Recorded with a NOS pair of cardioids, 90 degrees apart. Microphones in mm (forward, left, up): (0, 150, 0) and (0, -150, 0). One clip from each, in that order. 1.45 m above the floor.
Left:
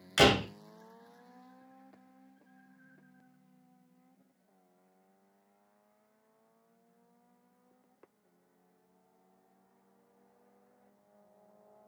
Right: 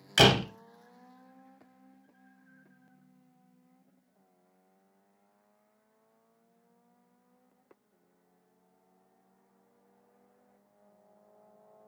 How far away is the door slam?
About 0.9 m.